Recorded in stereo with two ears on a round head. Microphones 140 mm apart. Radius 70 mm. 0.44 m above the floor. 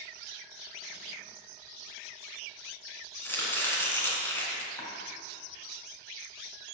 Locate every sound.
3.2 s chopping: 15° left (ahead or behind), 2.5 m
4.8 s chopping: 25° left (ahead or behind), 3 m